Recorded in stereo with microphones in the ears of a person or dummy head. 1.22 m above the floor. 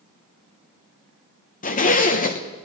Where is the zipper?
40° left (ahead or behind), 0.9 m.